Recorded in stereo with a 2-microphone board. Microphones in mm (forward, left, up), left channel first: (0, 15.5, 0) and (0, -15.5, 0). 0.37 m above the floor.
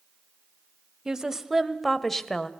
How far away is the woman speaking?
About 1.8 m.